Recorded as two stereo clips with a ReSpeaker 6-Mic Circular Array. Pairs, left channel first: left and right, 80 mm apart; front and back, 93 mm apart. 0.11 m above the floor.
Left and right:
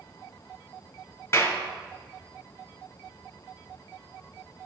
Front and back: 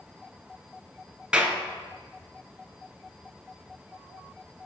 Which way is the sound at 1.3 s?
105° left.